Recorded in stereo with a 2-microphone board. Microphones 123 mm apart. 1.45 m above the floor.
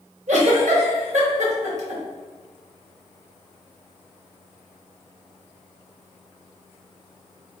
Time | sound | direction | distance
0.3 | a giggle | 70° right (ahead or behind) | 1.4 m